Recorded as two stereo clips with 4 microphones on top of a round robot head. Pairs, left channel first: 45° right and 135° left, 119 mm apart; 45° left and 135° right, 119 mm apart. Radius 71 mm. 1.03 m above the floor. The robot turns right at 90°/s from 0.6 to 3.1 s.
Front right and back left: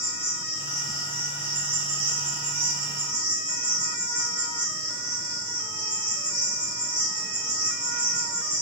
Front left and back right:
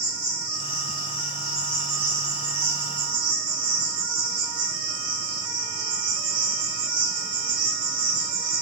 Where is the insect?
20° left, 1.1 m; by 8.6 s 115° right, 1.1 m.